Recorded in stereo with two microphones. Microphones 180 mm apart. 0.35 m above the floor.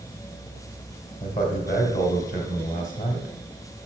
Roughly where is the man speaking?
Left.